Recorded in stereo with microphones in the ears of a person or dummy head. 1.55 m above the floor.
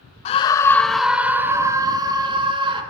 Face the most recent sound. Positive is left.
turn(degrees=-25)  # may be behind; listen again after turning